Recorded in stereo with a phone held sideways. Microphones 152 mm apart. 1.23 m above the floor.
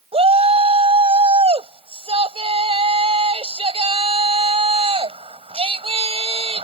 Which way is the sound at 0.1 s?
40° right (ahead or behind).